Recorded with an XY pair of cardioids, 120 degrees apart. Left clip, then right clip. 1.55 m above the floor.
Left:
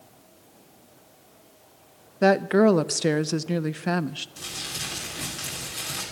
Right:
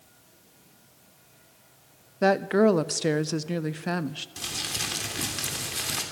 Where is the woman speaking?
15° left, 0.6 m.